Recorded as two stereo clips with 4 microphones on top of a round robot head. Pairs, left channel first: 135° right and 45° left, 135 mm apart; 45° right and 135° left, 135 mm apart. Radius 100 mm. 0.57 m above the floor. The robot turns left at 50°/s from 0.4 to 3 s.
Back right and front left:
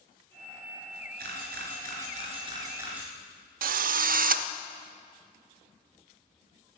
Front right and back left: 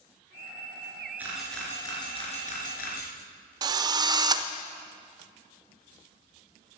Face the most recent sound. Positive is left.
turn(degrees=70)